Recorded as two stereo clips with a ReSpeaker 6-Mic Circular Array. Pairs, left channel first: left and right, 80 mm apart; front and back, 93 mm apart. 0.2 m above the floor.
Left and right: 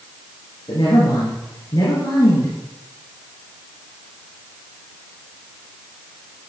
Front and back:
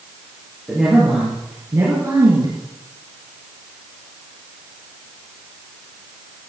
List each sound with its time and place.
0.7 s a woman speaking: 90° left, 4 m; by 2.5 s 135° left, 3.5 m